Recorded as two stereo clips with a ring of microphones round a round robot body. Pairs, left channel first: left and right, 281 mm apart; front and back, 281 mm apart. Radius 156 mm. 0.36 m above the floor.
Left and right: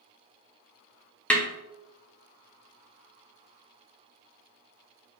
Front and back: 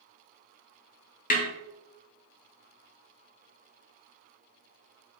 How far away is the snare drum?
About 1.0 m.